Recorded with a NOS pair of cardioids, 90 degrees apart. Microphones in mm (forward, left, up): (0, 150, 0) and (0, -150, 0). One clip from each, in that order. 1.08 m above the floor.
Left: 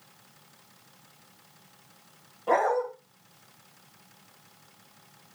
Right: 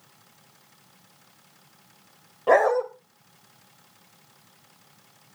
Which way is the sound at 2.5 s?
55° right.